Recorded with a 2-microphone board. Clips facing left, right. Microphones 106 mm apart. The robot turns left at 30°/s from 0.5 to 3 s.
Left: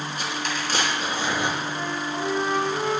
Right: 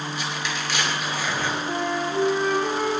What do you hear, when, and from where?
0.2 s tearing paper: 50° left (ahead or behind), 5.5 m; by 1.6 s 15° left (ahead or behind), 5.5 m
1.7 s a flute: 50° right, 7 m; by 2.9 s 90° right, 7 m